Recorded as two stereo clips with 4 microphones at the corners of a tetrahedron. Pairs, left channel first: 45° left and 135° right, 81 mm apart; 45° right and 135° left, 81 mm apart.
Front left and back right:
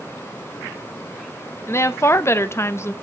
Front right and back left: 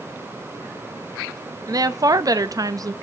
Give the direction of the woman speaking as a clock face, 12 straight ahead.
9 o'clock.